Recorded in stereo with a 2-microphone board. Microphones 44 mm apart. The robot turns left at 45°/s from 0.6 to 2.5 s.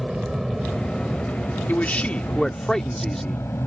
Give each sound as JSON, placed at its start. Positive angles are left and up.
{"t": 0.0, "sound": "an aircraft", "side_deg": -10}
{"t": 1.7, "sound": "a man speaking", "azimuth_deg": 50}